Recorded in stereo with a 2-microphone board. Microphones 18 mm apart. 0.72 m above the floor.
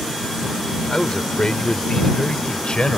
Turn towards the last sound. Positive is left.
turn(degrees=70)  # may be behind; listen again after turning